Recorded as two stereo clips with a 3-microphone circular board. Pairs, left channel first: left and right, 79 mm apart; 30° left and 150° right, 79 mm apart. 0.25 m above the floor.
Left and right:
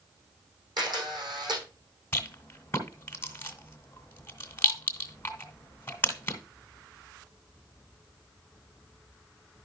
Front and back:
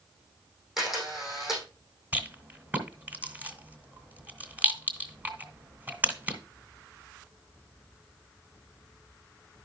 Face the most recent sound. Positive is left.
turn(degrees=145)